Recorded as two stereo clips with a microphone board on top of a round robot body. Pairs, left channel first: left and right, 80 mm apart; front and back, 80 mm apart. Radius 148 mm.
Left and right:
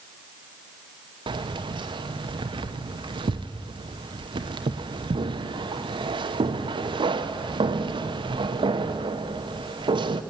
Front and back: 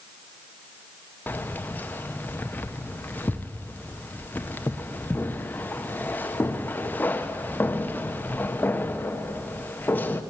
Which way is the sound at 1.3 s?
70° right.